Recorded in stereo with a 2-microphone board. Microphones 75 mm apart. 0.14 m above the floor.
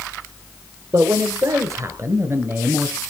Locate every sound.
0.9 s a man speaking: 50° right (ahead or behind), 2.5 m; by 3.0 s 25° right (ahead or behind), 1.8 m